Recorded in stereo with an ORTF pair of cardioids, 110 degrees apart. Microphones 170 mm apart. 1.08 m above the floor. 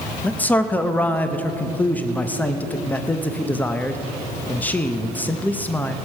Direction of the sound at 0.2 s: 10° left.